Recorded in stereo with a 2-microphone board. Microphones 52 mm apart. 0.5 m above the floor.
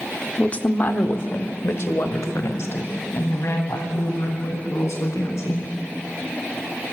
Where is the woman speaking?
25° left (ahead or behind), 1.1 m; by 5.7 s 75° left (ahead or behind), 6 m.